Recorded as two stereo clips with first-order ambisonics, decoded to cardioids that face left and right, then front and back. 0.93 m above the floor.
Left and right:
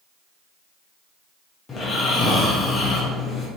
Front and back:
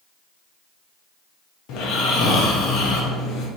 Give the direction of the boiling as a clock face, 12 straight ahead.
No boiling in this recording.